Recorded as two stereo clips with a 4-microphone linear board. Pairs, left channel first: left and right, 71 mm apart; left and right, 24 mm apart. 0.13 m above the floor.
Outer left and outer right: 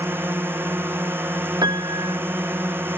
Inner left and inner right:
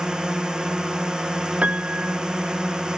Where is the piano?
75° right (ahead or behind).